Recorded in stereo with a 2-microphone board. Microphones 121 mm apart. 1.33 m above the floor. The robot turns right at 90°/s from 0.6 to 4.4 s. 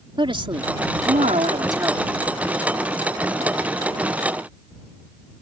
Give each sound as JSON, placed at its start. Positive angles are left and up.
{"t": 0.2, "sound": "a woman speaking", "azimuth_deg": -135}